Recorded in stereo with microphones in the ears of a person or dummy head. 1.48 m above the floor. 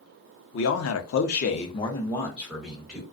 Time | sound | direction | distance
0.5 | a man speaking | 65° left (ahead or behind) | 0.6 m